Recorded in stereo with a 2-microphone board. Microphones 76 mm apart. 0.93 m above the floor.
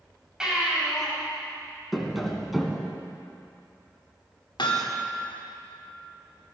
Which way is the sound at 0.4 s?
10° right (ahead or behind).